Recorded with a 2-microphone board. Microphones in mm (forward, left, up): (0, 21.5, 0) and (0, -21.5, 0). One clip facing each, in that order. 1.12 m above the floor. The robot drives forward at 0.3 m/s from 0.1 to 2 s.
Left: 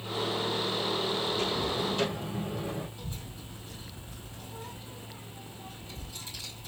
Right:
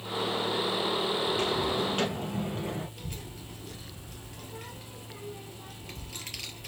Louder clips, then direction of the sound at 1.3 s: Right 2 dB; 55° right (ahead or behind).